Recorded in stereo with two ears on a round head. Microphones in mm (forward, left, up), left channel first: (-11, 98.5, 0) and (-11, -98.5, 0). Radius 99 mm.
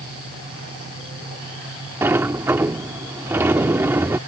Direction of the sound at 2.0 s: 10° right (ahead or behind).